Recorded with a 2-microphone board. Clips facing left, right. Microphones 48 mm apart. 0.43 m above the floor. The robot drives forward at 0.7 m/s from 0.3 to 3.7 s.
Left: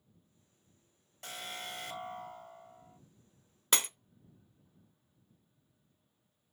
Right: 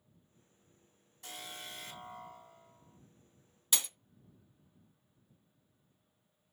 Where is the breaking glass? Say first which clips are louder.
Left 6 dB; 45° left (ahead or behind), 0.6 m.